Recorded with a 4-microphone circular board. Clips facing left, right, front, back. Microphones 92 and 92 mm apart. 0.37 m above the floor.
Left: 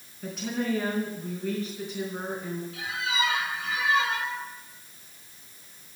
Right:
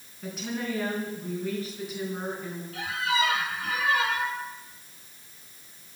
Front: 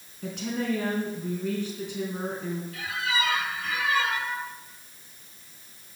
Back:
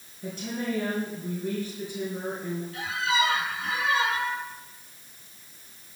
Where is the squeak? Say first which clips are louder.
Right 5 dB, back 4 dB; 120° right, 2 m.